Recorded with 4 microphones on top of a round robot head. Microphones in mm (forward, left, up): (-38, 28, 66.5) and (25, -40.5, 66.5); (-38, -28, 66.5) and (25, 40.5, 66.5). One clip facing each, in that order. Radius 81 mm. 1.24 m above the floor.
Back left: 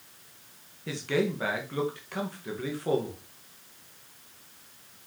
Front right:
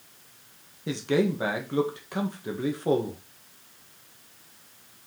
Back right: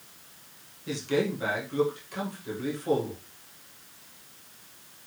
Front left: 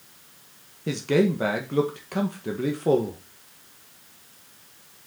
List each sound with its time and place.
0.9 s a man speaking: 20° left, 1.7 m